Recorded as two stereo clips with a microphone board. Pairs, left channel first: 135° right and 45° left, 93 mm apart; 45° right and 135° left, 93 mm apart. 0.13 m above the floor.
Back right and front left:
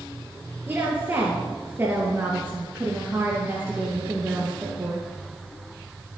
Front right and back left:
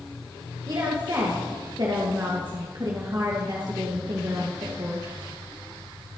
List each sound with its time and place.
0.7 s a woman speaking: 105° left, 2.5 m